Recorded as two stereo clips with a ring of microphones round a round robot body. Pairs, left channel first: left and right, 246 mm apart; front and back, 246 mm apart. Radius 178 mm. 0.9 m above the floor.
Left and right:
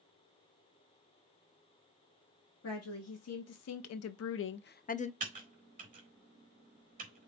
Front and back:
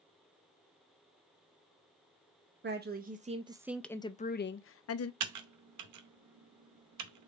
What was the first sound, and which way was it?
A woman speaking, 130° left.